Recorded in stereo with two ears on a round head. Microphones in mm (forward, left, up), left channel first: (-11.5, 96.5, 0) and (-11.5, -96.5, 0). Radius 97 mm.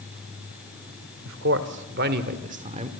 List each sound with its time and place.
1.2 s a man speaking: 65° right (ahead or behind), 2.0 m; by 2.9 s 25° right (ahead or behind), 1.7 m